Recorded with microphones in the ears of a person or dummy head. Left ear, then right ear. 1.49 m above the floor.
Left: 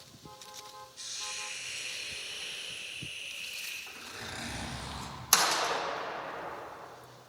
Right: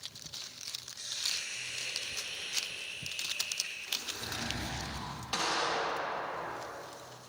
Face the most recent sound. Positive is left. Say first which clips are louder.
# left 4 dB
turn(degrees=55)  # may be behind; listen again after turning